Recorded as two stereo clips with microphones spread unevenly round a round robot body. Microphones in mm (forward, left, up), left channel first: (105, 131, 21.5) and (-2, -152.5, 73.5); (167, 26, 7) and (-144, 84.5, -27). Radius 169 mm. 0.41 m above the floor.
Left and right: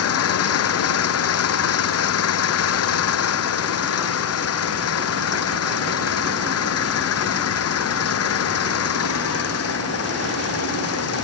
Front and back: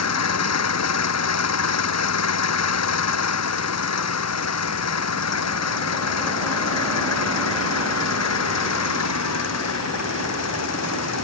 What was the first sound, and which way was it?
An engine running, 30° left.